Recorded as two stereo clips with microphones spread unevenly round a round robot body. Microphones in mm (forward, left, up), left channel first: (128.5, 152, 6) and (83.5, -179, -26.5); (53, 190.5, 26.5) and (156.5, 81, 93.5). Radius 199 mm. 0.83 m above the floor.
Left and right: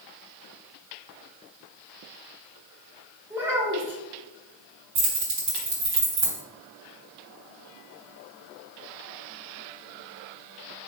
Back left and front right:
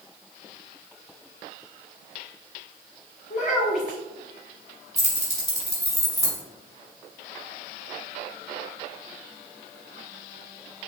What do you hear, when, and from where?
3.3 s a child speaking: 175° left, 1.6 m
5.0 s keys jangling: 145° right, 3 m